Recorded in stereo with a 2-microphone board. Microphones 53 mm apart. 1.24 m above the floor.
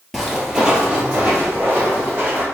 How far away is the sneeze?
I don't hear a sneeze.